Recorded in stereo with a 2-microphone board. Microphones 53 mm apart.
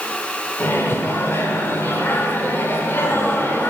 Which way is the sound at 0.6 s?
45° left (ahead or behind).